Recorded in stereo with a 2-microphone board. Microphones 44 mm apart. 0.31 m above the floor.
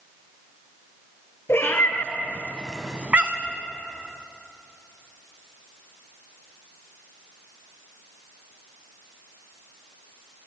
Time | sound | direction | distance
1.5 | a cat meowing | 65° left (ahead or behind) | 1.7 m